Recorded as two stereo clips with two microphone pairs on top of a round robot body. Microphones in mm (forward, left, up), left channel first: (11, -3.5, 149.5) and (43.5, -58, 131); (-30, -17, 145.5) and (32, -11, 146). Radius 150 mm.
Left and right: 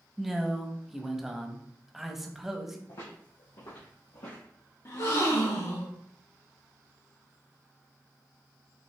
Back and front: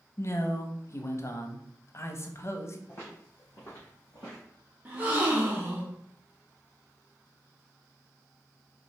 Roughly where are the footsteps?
Behind left.